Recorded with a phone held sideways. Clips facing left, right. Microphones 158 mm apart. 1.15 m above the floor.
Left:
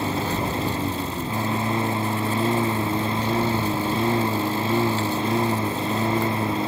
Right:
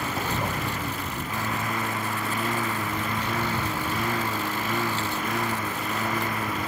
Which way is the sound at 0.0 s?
25° left (ahead or behind).